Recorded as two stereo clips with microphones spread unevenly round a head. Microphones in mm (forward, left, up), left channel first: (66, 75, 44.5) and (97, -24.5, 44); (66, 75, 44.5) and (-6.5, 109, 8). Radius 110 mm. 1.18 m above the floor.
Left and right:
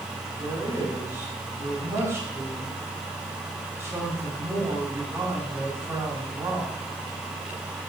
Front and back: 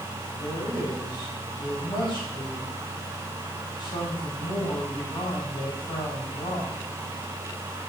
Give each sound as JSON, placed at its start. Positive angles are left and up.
{"t": 0.4, "sound": "a man speaking", "azimuth_deg": -5, "distance_m": 4.5}